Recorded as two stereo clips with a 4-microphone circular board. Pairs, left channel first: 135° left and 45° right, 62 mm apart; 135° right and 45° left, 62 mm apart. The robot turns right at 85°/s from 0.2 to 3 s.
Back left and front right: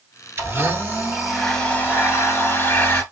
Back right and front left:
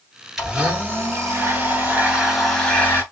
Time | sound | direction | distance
0.4 | a blender | 35° right | 1.9 m